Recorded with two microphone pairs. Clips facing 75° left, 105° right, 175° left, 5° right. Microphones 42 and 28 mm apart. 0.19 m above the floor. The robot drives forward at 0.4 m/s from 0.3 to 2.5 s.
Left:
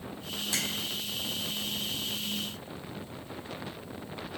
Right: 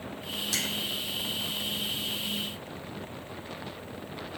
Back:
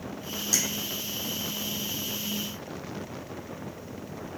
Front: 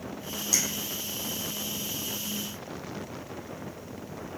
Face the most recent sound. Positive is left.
turn(degrees=150)